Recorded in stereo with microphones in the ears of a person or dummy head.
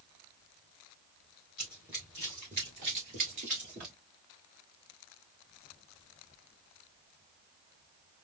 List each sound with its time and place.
1.6 s running footsteps: centre (ahead or behind), 1.3 m; by 4.0 s 35° right (ahead or behind), 1.6 m